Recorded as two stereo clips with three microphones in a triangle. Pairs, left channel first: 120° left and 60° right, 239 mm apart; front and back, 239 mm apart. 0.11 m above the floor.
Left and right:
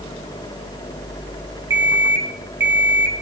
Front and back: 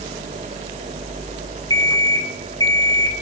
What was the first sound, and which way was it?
An alarm clock, 70° right.